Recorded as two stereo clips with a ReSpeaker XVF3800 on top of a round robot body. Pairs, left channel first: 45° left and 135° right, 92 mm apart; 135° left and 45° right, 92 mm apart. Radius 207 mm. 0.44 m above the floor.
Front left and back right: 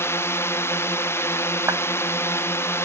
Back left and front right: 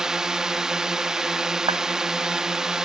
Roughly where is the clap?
Right.